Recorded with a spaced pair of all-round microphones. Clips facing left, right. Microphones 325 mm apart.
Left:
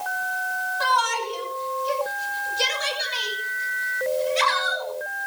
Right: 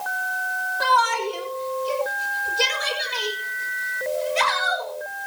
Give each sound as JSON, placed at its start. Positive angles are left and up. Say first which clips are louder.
{"t": 0.8, "sound": "a shout", "louder": "right 4 dB", "side_deg": -65, "distance_m": 3.5}